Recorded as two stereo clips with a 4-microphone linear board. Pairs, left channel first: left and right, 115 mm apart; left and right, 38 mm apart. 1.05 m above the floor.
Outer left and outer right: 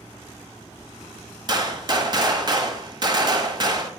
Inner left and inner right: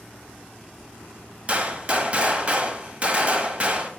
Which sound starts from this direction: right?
A gunshot, at 1.5 s.